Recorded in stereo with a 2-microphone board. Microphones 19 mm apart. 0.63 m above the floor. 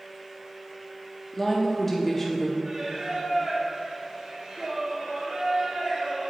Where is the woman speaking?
10° left (ahead or behind), 0.7 m.